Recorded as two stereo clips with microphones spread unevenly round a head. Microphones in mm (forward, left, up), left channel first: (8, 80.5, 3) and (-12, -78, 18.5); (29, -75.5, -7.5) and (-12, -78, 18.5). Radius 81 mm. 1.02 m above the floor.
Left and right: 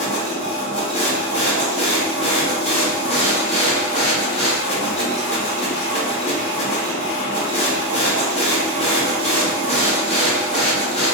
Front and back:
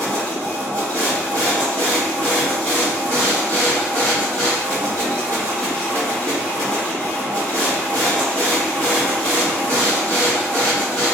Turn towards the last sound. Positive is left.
turn(degrees=130)